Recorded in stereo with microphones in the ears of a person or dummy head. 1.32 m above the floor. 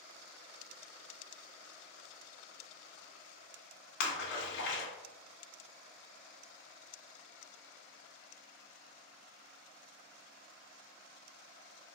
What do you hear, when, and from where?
4.0 s a splash: 70° left (ahead or behind), 1.4 m